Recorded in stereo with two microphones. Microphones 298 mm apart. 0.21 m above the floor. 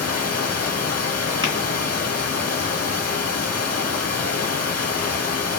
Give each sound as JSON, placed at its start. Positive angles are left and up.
{"t": 0.0, "sound": "running water", "side_deg": 55, "distance_m": 1.4}
{"t": 1.4, "sound": "tapping", "side_deg": -15, "distance_m": 1.7}